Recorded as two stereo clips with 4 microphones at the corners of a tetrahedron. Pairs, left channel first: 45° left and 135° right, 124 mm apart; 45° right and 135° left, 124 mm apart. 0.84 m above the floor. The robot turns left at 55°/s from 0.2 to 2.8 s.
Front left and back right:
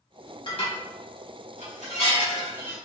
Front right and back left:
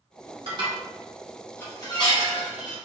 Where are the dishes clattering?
90° left, 1.2 m; by 2.8 s 35° right, 1.2 m.